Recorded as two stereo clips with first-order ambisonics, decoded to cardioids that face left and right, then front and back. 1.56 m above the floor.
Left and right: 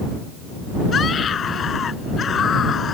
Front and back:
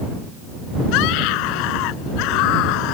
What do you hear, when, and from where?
0.9 s a scream: 25° left